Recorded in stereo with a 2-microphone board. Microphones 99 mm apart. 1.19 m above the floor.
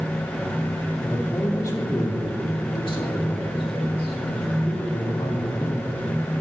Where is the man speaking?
25° left (ahead or behind), 3 m; by 5.9 s 75° left (ahead or behind), 5.5 m.